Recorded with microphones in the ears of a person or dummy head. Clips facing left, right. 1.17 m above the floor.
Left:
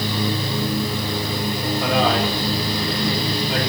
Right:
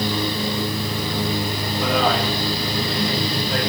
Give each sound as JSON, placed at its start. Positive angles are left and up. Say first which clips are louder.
{"t": 1.8, "sound": "a man speaking", "louder": "even", "side_deg": 5, "distance_m": 6.5}